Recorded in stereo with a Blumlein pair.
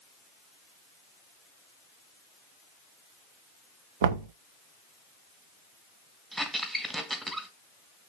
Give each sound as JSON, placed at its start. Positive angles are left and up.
{"t": 4.0, "sound": "knocking", "azimuth_deg": -60, "distance_m": 0.9}
{"t": 6.3, "sound": "a squeak", "azimuth_deg": -5, "distance_m": 1.5}